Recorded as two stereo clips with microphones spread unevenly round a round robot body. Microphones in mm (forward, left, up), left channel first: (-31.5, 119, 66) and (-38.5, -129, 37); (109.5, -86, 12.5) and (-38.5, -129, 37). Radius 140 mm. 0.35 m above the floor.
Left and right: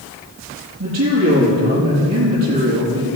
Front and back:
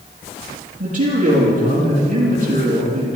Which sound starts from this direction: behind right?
A man speaking, at 0.8 s.